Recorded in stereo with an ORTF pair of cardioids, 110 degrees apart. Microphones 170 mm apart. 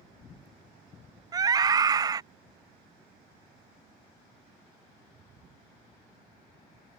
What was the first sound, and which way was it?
A scream, 20° right.